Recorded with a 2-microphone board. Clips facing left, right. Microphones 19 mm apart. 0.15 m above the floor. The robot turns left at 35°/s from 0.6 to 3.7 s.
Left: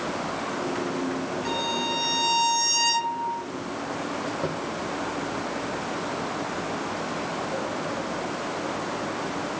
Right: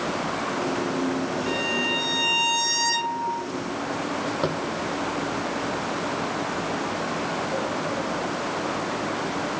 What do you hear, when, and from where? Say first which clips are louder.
1.4 s a violin: right 1 dB; 55° left, 3 m; by 3.4 s 15° right, 3 m
4.4 s tapping: right 3 dB; 50° right (ahead or behind), 1.0 m